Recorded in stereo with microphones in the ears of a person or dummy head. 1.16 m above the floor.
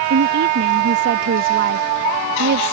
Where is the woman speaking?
60° right (ahead or behind).